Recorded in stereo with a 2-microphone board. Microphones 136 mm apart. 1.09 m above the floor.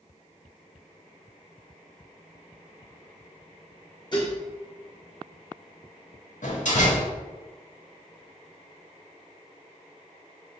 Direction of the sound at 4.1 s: 35° left (ahead or behind).